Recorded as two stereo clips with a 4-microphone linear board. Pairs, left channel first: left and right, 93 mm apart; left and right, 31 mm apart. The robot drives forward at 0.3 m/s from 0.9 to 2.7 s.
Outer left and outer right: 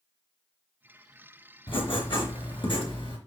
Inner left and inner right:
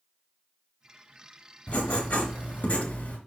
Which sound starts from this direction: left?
Writing, at 1.7 s.